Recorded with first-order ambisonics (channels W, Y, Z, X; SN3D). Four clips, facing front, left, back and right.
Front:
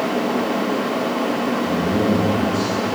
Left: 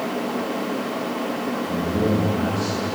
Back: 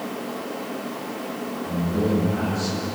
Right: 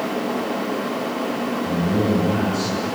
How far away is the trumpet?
No trumpet in this recording.